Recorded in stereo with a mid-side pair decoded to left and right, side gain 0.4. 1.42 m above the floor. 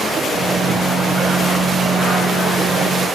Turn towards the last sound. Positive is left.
turn(degrees=-55)